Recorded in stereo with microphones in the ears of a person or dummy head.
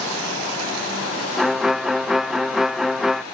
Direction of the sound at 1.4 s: Centre (ahead or behind).